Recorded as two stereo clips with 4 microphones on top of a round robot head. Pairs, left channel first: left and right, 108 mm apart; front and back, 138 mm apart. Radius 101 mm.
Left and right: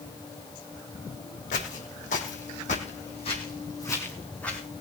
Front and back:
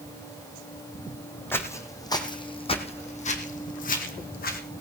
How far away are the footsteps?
About 2.5 m.